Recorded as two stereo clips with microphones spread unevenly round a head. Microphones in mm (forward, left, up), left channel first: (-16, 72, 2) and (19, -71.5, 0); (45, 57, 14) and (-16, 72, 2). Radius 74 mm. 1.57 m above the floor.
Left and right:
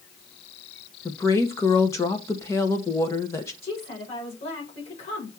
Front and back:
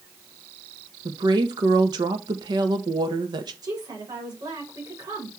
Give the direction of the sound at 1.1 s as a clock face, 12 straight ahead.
6 o'clock.